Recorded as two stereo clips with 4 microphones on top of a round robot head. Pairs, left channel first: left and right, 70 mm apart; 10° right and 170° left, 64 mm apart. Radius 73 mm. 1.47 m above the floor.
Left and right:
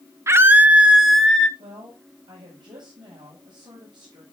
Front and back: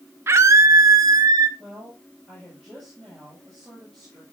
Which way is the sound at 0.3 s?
140° right.